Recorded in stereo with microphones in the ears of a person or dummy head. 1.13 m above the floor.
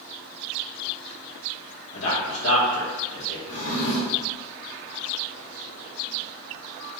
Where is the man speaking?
60° left (ahead or behind), 2.5 m.